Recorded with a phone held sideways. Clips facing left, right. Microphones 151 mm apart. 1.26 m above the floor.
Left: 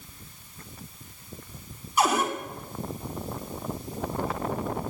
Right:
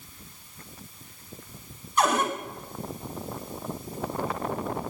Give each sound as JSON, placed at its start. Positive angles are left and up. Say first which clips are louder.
{"t": 2.0, "sound": "a cupboard door", "louder": "even", "side_deg": 10, "distance_m": 3.0}